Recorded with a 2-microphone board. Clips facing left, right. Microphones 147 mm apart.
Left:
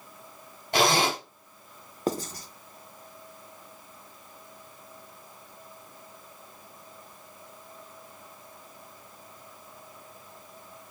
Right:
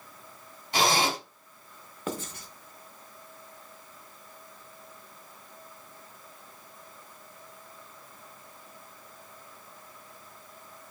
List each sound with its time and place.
0.7 s a zipper: 60° left (ahead or behind), 2 m
2.1 s writing: 35° left (ahead or behind), 0.5 m